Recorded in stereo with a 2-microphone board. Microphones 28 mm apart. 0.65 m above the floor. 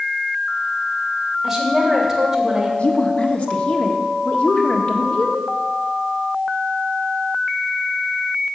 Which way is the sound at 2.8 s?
50° left (ahead or behind).